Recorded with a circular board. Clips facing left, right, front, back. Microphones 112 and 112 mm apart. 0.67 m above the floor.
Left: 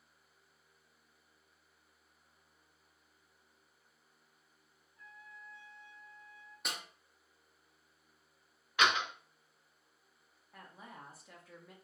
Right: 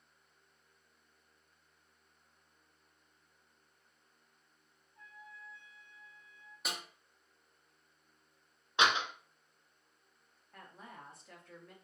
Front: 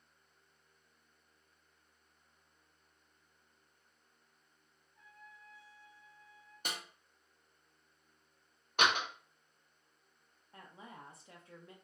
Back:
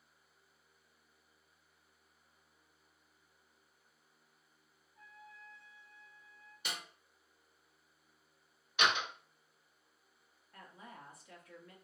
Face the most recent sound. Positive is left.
turn(degrees=10)